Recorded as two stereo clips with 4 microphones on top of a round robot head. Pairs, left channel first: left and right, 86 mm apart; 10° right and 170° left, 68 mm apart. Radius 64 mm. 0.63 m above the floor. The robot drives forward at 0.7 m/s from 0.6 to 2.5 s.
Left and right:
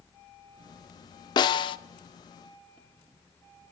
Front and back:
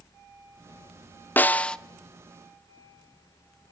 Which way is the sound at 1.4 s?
50° left.